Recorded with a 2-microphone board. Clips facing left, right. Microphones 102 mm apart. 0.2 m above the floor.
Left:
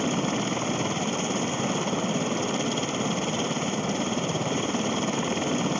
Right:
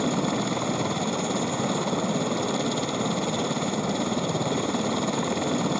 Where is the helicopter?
5° right (ahead or behind).